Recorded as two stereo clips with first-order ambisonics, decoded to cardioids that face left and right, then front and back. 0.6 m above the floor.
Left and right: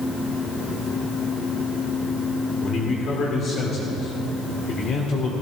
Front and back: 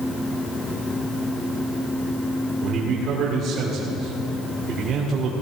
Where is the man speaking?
140° left, 1.9 m.